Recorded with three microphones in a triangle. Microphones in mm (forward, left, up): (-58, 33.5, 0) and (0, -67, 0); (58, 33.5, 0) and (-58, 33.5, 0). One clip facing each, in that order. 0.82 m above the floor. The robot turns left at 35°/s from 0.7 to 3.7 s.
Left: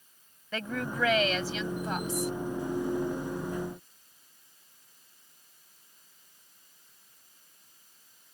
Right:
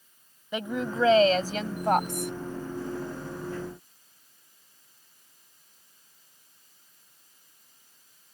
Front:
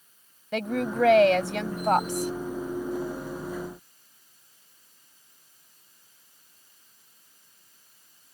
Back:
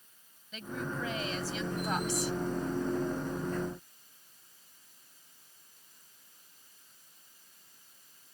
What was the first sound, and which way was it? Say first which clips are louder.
A woman speaking: right 4 dB, front 11 dB; 10° left.